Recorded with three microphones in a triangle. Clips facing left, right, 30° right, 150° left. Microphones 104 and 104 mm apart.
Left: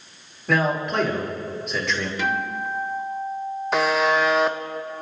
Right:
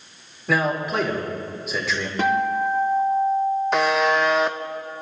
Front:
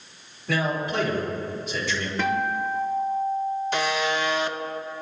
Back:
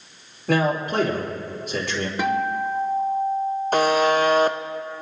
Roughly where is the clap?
I don't hear a clap.